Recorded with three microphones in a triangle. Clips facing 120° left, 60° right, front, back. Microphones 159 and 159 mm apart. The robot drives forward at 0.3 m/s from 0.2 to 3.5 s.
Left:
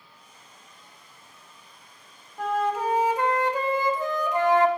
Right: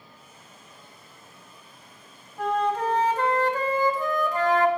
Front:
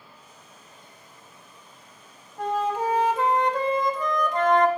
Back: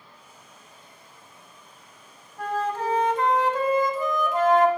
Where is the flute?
35° left, 0.6 m; by 4.7 s 105° left, 0.6 m.